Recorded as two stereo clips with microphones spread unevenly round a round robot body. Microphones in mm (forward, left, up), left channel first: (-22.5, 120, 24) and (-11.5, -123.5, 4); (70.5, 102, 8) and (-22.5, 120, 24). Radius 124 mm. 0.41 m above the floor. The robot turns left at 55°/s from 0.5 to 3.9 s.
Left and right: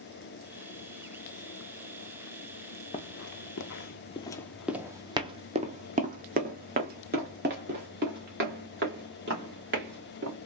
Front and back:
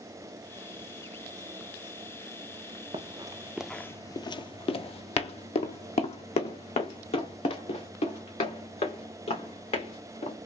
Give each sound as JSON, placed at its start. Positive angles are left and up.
{"t": 2.9, "sound": "running footsteps", "azimuth_deg": 155, "distance_m": 0.7}